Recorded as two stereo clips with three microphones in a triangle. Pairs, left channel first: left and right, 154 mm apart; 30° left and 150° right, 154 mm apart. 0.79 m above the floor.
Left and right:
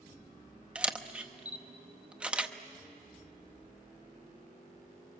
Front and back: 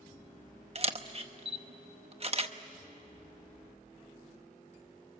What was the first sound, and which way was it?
A camera shutter, 170° right.